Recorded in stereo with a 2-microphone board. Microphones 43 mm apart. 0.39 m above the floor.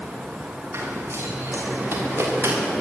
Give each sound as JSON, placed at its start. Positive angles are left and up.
{"t": 0.7, "sound": "running footsteps", "side_deg": -85, "distance_m": 9.0}